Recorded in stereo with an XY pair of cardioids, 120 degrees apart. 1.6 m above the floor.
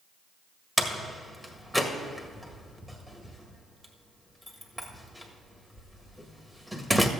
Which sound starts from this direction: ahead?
A door slam, at 0.8 s.